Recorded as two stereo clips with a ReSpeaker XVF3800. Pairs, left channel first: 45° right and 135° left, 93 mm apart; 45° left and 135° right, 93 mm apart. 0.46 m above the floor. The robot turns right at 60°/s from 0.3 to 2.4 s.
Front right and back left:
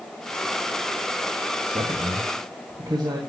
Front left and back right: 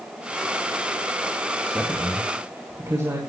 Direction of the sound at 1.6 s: 125° left.